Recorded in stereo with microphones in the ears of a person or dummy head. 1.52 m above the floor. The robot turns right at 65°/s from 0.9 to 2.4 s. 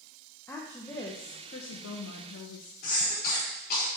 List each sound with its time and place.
0.5 s a woman speaking: 15° left, 1.0 m; by 2.7 s 110° left, 1.0 m
2.8 s a cough: 55° left (ahead or behind), 4.5 m